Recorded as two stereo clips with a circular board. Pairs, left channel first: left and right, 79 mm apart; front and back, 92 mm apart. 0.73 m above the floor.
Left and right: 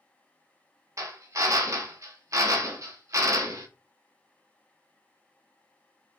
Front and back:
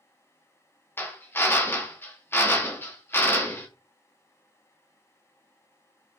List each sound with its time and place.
1.0 s a drill: 60° right, 1.0 m